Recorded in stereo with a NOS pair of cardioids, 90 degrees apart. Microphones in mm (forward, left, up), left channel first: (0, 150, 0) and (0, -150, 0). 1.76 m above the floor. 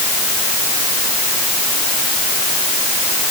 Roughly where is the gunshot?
I don't hear a gunshot.